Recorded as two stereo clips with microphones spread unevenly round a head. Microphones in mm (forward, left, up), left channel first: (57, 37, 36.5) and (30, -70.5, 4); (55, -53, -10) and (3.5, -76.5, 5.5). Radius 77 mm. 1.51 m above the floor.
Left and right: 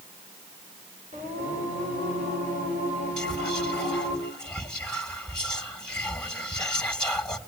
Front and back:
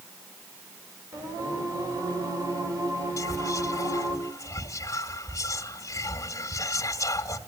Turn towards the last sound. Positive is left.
turn(degrees=-5)